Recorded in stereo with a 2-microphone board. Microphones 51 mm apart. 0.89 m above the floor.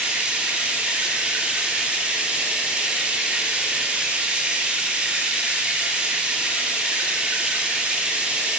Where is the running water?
25° right (ahead or behind), 0.8 m.